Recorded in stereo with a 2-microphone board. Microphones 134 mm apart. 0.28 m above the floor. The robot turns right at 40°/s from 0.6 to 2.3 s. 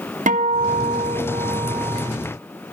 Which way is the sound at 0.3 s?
90° right.